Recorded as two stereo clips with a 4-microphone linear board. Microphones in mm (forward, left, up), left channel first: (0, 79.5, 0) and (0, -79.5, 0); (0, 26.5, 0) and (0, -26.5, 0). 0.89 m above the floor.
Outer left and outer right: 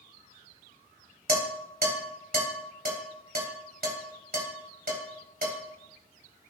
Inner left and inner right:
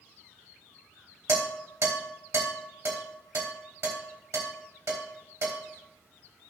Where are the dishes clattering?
70° right (ahead or behind), 3.5 m.